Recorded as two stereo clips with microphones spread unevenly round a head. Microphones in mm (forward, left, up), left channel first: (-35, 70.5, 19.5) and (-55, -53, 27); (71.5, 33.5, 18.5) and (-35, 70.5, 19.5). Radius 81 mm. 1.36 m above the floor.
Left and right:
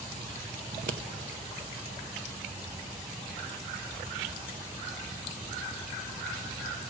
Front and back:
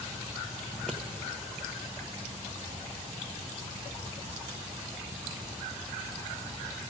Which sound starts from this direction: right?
Scissors, at 0.7 s.